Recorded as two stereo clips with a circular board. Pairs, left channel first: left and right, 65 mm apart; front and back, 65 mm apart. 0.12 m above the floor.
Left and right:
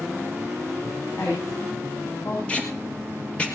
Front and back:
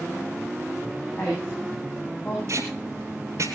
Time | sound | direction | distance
1.2 | a woman speaking | 55° left | 8 m
2.5 | tape being pulled | 160° left | 2.5 m